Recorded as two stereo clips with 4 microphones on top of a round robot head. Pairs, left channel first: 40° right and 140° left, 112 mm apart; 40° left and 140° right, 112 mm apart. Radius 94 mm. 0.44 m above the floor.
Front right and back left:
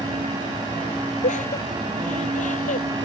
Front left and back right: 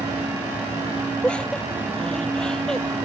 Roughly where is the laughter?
Ahead right.